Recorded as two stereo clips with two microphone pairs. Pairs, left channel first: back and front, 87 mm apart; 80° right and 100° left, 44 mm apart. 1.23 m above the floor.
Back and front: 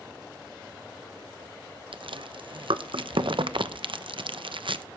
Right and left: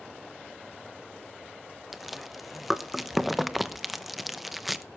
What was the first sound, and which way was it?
Chewing, 15° left.